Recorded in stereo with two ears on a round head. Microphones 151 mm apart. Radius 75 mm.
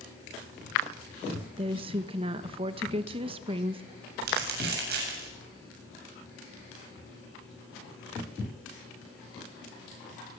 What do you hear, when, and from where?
1.6 s a woman speaking: 30° right (ahead or behind), 1.2 m
4.2 s crumpling: 65° right (ahead or behind), 8 m